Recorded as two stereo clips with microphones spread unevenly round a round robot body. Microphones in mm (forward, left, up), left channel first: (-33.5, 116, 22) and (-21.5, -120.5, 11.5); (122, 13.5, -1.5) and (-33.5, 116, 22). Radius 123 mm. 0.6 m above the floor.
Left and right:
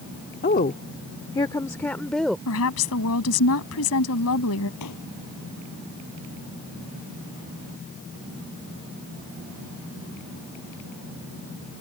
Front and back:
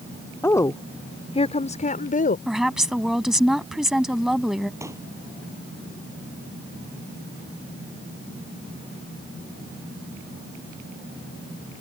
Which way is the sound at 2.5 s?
60° left.